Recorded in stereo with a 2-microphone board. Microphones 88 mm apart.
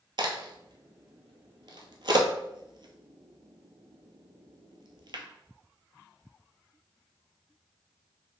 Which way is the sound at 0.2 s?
60° right (ahead or behind).